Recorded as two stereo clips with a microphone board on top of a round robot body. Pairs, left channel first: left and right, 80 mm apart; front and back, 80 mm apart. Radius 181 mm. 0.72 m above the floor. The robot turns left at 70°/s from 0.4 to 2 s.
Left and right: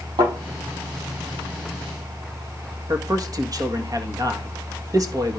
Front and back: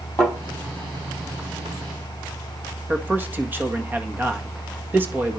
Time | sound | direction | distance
0.2 | a thud | 60° right | 7 m
2.9 | a man speaking | 120° right | 1.7 m